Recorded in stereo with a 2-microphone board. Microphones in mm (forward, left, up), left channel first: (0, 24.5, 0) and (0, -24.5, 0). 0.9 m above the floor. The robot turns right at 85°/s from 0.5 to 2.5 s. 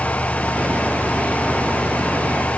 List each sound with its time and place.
Only background noise.